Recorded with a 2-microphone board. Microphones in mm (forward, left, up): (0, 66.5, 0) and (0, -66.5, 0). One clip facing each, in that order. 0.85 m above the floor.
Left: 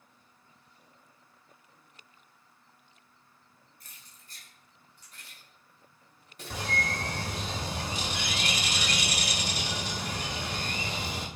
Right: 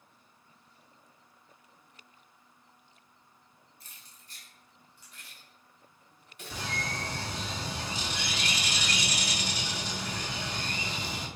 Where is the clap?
No clap in this recording.